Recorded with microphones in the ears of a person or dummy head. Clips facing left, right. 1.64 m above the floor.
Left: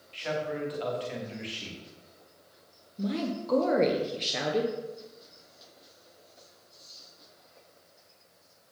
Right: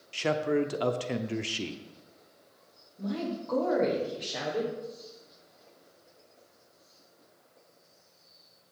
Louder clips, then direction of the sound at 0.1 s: Right 6 dB; 60° right (ahead or behind).